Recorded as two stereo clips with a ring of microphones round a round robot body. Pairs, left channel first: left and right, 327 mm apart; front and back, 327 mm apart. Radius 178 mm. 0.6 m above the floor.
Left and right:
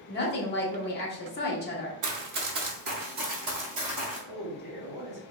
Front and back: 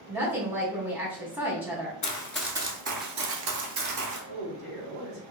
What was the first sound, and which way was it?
A woman speaking, 100° left.